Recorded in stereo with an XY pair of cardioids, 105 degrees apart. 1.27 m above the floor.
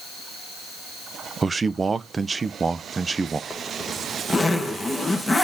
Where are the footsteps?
I don't hear footsteps.